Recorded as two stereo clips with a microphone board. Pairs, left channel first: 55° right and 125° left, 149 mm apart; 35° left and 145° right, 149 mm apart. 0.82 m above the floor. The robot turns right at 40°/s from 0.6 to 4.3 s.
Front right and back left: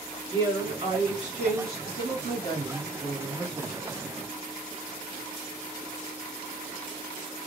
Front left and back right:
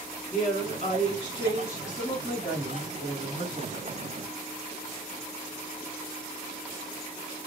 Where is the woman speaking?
65° left, 1.9 m; by 3.9 s 160° right, 1.9 m.